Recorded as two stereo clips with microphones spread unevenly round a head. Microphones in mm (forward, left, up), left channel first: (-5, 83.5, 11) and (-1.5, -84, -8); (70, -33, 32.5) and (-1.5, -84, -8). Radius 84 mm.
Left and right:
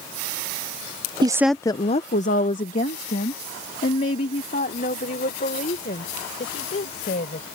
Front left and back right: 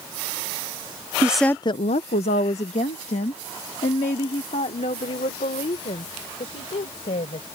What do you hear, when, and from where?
1.2 s a woman speaking: 135° right; by 7.5 s 45° left